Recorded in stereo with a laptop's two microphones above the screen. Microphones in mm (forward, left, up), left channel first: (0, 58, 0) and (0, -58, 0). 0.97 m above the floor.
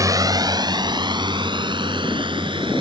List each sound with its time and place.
0.0 s a drone: 30° right (ahead or behind); by 2.8 s 45° right (ahead or behind)